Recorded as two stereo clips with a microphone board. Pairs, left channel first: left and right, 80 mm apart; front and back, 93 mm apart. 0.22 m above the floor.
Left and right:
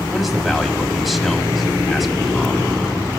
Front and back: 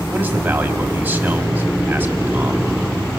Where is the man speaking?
Straight behind, 1.4 m.